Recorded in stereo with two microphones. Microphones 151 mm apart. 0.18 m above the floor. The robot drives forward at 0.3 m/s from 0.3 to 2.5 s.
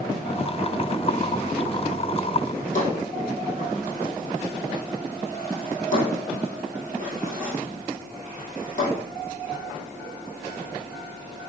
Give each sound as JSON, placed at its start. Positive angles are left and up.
{"t": 2.5, "sound": "a drawer", "side_deg": 55, "distance_m": 2.0}